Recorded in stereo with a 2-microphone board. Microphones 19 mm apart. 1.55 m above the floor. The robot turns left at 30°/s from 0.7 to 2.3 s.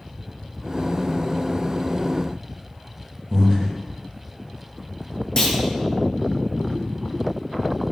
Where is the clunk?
30° left (ahead or behind), 0.6 m.